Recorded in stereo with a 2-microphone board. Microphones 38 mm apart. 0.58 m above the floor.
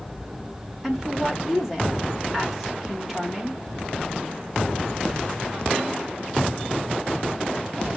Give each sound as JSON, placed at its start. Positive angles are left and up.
{"t": 0.8, "sound": "a woman speaking", "side_deg": -5, "distance_m": 1.5}